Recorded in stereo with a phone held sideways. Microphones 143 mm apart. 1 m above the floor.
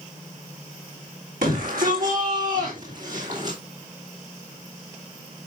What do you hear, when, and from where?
1.4 s a shout: 75° right (ahead or behind), 3.5 m; by 3.6 s 60° right (ahead or behind), 3 m